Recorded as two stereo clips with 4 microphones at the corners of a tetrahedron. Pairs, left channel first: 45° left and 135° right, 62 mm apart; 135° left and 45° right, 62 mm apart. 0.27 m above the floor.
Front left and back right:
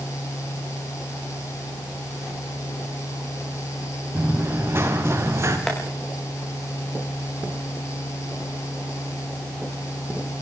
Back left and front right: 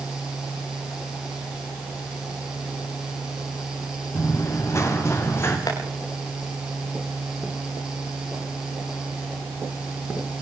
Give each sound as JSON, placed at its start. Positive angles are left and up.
{"t": 4.2, "sound": "running footsteps", "azimuth_deg": 170, "distance_m": 6.0}
{"t": 5.7, "sound": "tapping", "azimuth_deg": 125, "distance_m": 8.5}